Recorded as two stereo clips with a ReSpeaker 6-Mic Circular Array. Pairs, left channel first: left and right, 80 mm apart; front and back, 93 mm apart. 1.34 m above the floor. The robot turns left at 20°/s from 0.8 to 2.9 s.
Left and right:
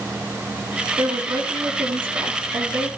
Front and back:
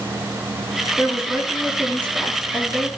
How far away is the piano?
No piano in this recording.